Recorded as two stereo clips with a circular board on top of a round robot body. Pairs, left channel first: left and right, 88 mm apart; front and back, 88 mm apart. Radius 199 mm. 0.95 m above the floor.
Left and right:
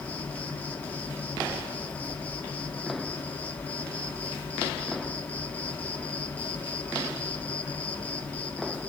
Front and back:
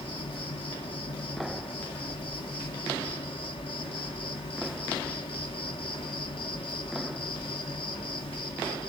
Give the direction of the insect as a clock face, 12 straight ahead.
11 o'clock.